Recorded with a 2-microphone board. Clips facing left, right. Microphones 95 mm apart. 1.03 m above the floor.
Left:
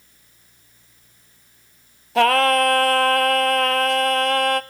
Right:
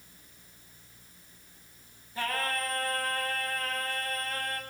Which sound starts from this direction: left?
Singing, at 2.1 s.